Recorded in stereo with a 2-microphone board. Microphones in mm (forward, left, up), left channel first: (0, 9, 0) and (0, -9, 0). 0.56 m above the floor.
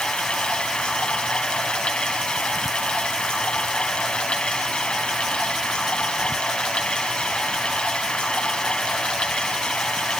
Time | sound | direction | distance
0.0 | running water | 75° left (ahead or behind) | 3.5 m